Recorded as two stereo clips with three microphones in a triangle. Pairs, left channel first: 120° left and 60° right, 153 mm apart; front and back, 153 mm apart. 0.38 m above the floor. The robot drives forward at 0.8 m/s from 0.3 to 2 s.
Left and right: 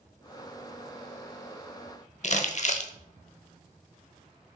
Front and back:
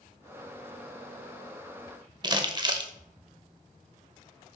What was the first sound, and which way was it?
Crumpling, 125° left.